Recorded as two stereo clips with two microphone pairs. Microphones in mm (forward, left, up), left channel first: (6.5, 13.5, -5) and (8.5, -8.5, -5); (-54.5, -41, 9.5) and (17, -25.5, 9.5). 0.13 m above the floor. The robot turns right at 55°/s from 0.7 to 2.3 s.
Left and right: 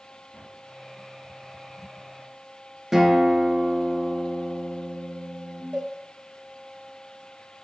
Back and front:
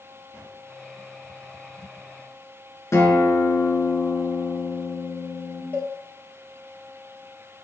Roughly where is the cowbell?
Right.